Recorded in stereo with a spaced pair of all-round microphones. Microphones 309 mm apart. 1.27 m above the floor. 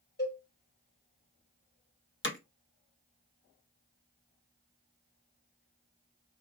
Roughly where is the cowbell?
Left.